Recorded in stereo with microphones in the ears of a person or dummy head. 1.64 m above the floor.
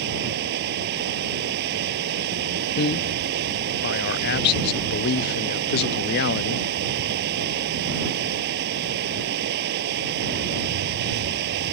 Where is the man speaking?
60° left (ahead or behind).